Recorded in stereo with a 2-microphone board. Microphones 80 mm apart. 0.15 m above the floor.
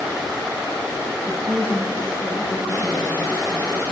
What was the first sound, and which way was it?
A woman speaking, 30° right (ahead or behind).